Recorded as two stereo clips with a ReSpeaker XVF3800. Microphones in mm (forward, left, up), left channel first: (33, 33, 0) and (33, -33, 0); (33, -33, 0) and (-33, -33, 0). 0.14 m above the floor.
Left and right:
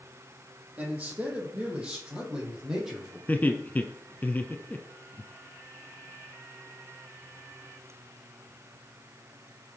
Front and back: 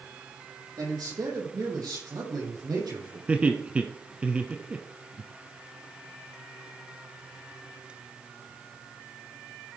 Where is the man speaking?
155° right, 5 m; by 3.2 s 175° right, 5.5 m.